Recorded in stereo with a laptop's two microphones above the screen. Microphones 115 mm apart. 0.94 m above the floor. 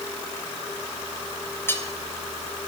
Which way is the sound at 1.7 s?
20° left (ahead or behind).